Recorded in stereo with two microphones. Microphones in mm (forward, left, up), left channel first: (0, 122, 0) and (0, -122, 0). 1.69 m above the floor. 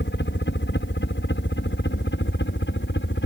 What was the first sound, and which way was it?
A helicopter, 50° left (ahead or behind).